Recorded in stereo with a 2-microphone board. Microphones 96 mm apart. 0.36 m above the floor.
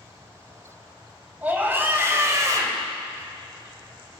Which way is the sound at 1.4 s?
15° right (ahead or behind).